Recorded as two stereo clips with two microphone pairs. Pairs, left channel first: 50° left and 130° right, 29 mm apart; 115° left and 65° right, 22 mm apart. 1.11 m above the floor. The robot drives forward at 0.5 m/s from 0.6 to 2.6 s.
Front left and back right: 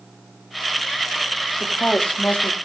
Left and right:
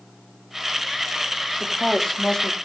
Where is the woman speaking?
40° left, 3 m; by 2.5 s 50° left, 2.5 m.